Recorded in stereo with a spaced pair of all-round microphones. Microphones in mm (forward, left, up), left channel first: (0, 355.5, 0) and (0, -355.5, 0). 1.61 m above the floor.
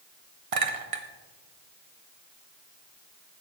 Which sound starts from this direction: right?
A clink, at 0.5 s.